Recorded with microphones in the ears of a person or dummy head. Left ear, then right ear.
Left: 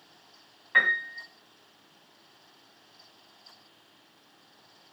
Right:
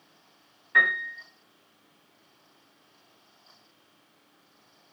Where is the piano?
15° left (ahead or behind), 1.7 m.